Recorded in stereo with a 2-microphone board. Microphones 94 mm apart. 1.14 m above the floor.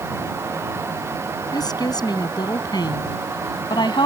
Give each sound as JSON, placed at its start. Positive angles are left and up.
{"t": 1.5, "sound": "a woman speaking", "side_deg": 45}